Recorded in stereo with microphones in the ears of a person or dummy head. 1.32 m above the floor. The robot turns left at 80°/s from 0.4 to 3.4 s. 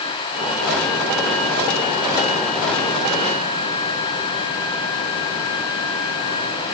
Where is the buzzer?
I don't hear a buzzer.